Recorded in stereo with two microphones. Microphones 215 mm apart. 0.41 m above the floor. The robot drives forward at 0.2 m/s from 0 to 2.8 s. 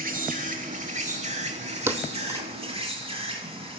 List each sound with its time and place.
0.0 s an insect: 40° right (ahead or behind), 1.0 m; by 3.8 s 25° right (ahead or behind), 1.4 m
1.9 s a thud: 10° right (ahead or behind), 0.6 m; by 2.5 s 15° right (ahead or behind), 0.5 m